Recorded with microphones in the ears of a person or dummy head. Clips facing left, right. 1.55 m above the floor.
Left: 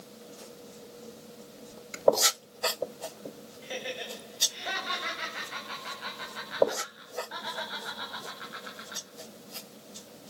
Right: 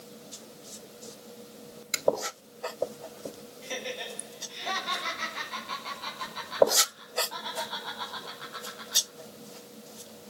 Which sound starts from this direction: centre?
Laughter, at 3.6 s.